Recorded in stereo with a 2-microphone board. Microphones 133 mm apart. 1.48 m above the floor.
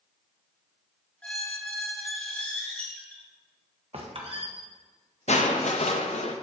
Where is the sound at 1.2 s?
10° left (ahead or behind), 0.9 m.